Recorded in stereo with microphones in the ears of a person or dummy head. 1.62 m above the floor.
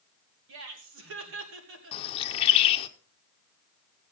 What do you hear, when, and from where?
0.5 s laughter: 70° right (ahead or behind), 2.5 m
1.9 s a bird: 30° left (ahead or behind), 0.9 m